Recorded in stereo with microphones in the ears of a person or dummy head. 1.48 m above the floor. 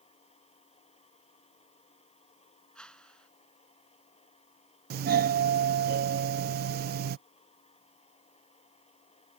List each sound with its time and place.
0.0 s a machine running: 30° left (ahead or behind)
2.8 s a whoosh: centre (ahead or behind)
4.9 s a doorbell: 60° right (ahead or behind)